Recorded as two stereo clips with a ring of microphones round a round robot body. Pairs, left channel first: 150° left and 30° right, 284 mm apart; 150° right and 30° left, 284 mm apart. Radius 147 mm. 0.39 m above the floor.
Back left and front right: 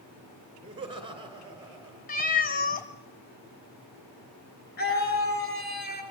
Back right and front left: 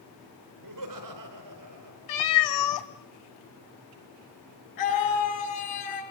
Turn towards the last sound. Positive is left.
turn(degrees=-155)